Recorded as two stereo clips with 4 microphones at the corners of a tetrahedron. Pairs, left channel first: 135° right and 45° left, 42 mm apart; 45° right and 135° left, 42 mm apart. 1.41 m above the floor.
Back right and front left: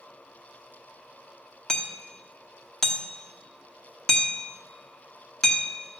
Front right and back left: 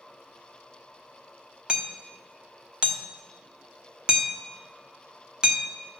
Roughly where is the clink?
I don't hear a clink.